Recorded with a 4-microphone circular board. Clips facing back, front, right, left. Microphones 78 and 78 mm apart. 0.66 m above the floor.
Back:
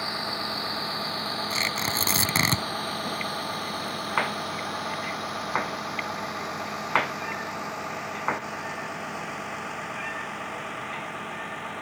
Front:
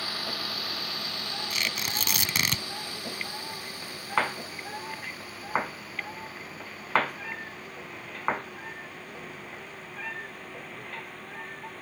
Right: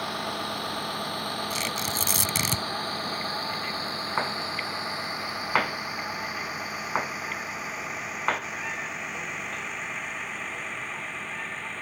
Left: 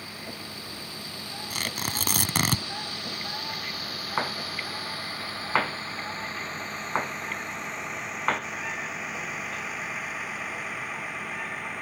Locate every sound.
0.0 s a vehicle: 115° right; by 11.8 s 170° left
1.5 s tearing paper: 125° left